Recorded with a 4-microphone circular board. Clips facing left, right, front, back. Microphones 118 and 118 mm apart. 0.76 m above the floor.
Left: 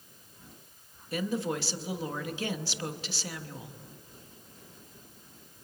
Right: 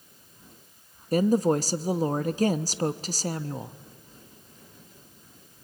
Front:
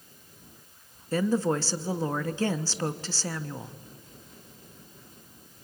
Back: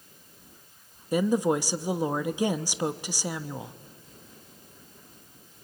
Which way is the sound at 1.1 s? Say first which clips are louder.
Right 10 dB, back 2 dB; 110° right.